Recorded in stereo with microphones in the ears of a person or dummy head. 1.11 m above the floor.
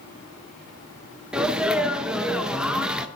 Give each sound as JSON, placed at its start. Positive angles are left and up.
{"t": 1.3, "sound": "a sneeze", "side_deg": -5, "distance_m": 0.7}